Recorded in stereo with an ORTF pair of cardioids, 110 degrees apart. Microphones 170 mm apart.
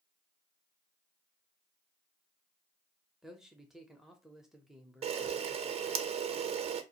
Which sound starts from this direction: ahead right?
A camera shutter, at 5.0 s.